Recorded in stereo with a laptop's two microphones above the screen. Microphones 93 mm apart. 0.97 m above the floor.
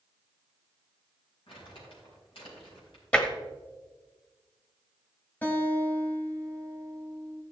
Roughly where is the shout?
I don't hear a shout.